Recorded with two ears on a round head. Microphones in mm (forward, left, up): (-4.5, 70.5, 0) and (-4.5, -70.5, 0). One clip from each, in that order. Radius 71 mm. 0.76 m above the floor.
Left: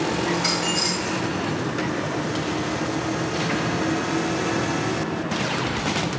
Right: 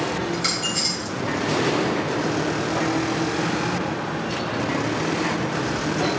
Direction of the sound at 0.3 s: 35° right (ahead or behind).